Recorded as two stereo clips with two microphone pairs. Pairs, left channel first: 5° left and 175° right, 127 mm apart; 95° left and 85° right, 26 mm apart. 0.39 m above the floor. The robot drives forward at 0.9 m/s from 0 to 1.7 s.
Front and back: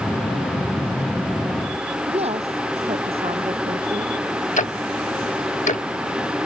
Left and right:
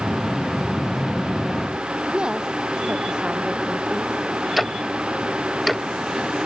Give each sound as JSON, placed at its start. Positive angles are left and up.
{"t": 2.1, "sound": "a woman speaking", "azimuth_deg": -135}
{"t": 4.6, "sound": "ticking", "azimuth_deg": 5}